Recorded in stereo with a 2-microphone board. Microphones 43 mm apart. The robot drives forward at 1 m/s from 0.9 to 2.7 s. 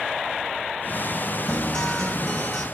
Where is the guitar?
15° left (ahead or behind), 2.5 m; by 2.6 s 10° left (ahead or behind), 3.5 m.